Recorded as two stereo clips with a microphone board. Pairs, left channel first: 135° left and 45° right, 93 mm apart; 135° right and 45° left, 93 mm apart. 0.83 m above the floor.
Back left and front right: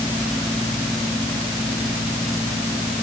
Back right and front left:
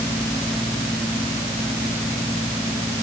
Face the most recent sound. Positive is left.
No sound to turn to.